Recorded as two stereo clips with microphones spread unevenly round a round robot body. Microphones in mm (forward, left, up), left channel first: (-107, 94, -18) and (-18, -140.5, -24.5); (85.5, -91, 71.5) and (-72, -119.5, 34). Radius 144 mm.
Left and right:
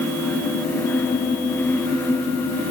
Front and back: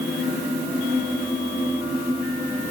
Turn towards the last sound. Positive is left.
No sound to turn to.